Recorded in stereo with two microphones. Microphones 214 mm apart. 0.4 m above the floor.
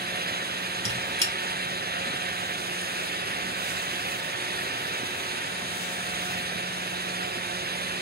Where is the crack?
No crack in this recording.